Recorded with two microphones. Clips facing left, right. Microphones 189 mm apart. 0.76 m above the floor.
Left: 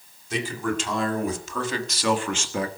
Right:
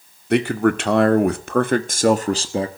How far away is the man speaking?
About 2 m.